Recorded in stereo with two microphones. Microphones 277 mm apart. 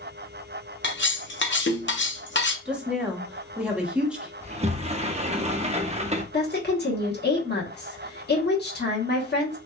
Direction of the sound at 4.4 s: 25° right (ahead or behind).